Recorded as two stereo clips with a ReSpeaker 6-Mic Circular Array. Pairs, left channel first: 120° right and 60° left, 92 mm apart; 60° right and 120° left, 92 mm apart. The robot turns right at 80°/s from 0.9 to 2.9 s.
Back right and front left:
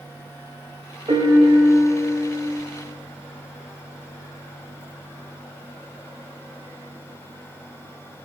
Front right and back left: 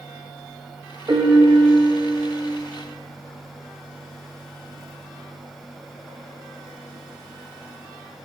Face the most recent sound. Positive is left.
turn(degrees=-145)